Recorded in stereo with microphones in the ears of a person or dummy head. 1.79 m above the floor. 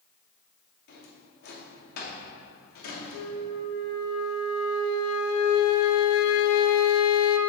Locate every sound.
0.9 s a drawer: 50° left (ahead or behind), 2.5 m
3.1 s a flute: 85° left, 1.0 m